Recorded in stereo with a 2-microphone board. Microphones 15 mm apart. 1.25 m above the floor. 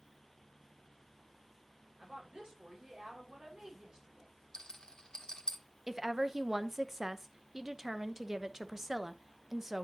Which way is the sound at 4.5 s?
70° left (ahead or behind).